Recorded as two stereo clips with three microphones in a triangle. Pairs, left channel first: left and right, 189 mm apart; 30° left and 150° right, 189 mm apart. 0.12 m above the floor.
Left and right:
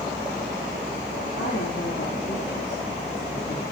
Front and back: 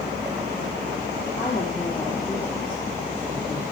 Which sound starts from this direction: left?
A woman speaking, at 1.4 s.